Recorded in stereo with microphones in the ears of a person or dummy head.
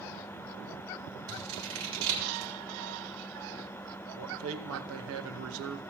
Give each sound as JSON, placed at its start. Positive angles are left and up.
{"t": 1.3, "sound": "scissors", "side_deg": -70, "distance_m": 3.0}
{"t": 4.1, "sound": "a man speaking", "side_deg": -75, "distance_m": 1.1}